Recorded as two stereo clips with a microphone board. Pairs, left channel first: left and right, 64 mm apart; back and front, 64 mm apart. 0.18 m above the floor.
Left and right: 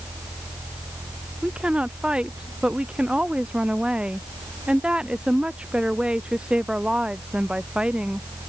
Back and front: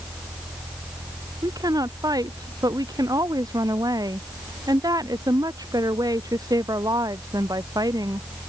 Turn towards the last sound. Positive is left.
turn(degrees=-15)